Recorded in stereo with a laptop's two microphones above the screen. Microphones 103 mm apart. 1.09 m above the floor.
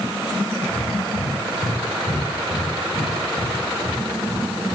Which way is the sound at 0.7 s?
80° left.